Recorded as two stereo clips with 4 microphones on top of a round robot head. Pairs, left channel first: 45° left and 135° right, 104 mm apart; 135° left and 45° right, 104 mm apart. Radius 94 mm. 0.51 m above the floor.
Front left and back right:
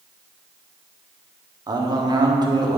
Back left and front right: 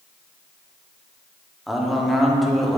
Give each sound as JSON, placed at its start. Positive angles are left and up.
{"t": 1.7, "sound": "a man speaking", "azimuth_deg": -135, "distance_m": 1.5}